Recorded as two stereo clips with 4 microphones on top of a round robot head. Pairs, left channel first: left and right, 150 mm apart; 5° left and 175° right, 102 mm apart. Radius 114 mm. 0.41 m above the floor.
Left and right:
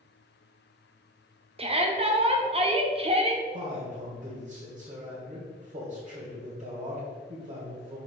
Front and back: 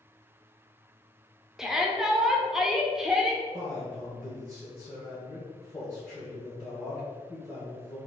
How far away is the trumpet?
No trumpet in this recording.